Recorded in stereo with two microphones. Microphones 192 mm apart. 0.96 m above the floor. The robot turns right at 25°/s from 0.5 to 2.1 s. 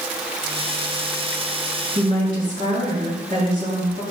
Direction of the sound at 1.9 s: 45° right (ahead or behind).